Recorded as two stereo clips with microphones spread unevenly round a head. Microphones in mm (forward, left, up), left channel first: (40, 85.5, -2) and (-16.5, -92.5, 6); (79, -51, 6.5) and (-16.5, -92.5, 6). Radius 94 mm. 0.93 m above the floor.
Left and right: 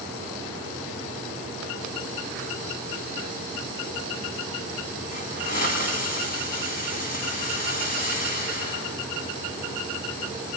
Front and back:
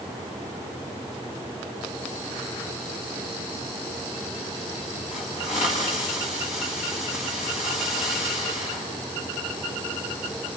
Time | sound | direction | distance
5.1 | a hiss | 25° left | 9.5 m